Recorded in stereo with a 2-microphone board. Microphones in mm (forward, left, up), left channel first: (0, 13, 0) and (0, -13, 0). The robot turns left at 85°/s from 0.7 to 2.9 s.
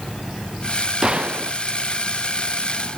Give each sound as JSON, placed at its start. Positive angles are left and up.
{"t": 1.0, "sound": "a gunshot", "azimuth_deg": -25}